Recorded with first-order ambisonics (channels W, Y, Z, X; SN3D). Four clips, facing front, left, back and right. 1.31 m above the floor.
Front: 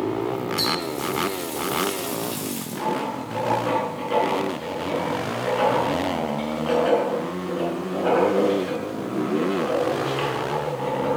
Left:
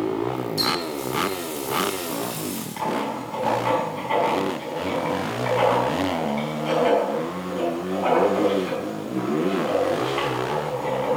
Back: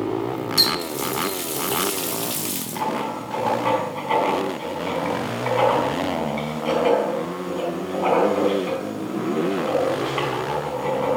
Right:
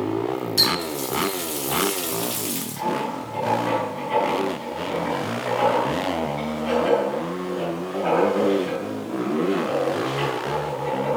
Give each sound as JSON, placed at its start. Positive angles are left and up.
{"t": 0.6, "sound": "a running tap", "azimuth_deg": -150, "distance_m": 1.8}
{"t": 2.8, "sound": "writing", "azimuth_deg": 160, "distance_m": 6.0}